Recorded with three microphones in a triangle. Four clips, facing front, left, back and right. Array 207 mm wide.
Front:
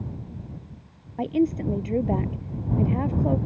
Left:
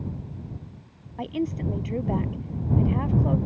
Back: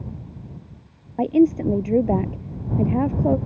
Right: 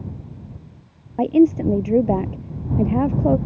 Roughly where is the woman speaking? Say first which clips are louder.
Right 14 dB, back 6 dB; behind right.